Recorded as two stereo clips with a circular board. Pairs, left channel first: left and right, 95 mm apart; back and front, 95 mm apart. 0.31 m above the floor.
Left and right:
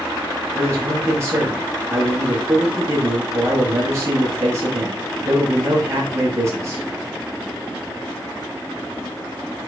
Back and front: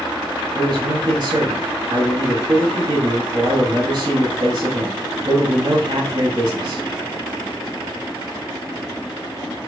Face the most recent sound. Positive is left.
turn(degrees=-35)